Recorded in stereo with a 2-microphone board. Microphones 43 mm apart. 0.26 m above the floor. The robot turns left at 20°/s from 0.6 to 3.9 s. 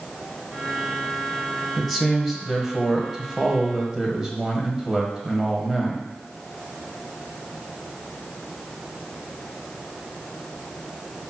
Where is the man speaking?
Centre (ahead or behind), 1.5 m; by 6.1 s 15° right (ahead or behind), 1.5 m.